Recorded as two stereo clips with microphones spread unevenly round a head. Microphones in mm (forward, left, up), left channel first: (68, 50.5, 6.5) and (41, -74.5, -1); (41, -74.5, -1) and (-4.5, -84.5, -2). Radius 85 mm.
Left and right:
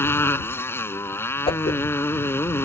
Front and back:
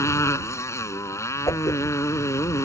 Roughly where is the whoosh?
Ahead left.